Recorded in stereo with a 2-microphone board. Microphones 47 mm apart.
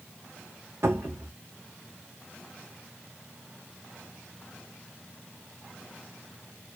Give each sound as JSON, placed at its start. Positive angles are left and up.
{"t": 0.8, "sound": "a cupboard door", "side_deg": -70, "distance_m": 1.4}